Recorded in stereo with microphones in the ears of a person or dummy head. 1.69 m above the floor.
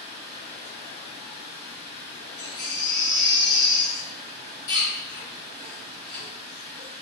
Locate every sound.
0.0 s running water: 25° right (ahead or behind), 1.0 m
2.4 s a baby crying: 50° left (ahead or behind), 1.8 m